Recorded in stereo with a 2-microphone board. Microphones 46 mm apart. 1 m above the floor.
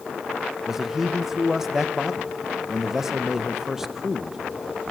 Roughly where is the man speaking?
Centre.